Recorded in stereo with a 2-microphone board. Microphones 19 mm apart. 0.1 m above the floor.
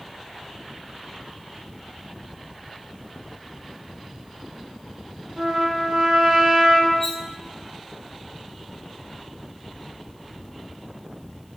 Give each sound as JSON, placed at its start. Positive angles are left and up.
{"t": 5.4, "sound": "a trumpet", "side_deg": -55, "distance_m": 2.5}
{"t": 7.0, "sound": "cutlery clinking", "side_deg": 15, "distance_m": 1.8}